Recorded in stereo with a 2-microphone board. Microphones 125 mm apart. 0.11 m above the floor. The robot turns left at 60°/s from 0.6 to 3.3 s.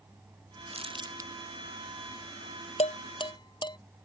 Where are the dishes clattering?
60° left (ahead or behind); by 3.8 s 35° left (ahead or behind).